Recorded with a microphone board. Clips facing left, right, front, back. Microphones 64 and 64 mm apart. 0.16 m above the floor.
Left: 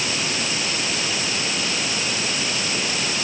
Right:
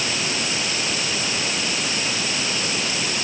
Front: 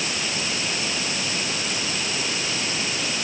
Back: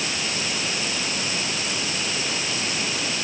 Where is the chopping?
I don't hear chopping.